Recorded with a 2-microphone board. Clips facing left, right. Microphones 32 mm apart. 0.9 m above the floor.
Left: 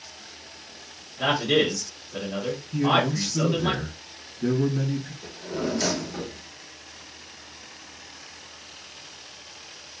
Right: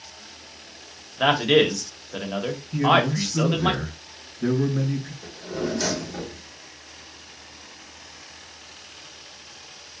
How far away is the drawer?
About 1.5 m.